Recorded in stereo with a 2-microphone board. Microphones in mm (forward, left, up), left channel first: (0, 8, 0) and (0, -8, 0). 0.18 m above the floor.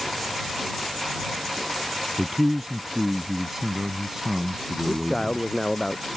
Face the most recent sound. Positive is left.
turn(degrees=40)  # may be behind; listen again after turning